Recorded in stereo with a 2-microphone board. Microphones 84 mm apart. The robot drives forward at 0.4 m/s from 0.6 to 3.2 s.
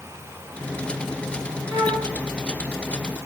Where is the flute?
55° right (ahead or behind), 3 m.